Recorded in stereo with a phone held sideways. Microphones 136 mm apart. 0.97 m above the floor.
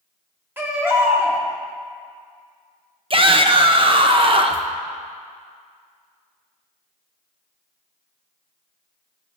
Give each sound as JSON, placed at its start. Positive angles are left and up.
{"t": 0.6, "sound": "a baby crying", "side_deg": -15, "distance_m": 1.7}
{"t": 3.1, "sound": "a shout", "side_deg": -40, "distance_m": 0.9}